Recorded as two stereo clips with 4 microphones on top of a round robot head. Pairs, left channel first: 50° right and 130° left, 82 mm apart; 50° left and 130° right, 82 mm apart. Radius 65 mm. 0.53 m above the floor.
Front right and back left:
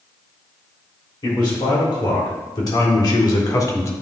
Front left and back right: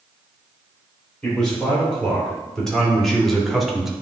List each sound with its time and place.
1.2 s a man speaking: 30° right, 3 m; by 3.9 s 45° right, 1.2 m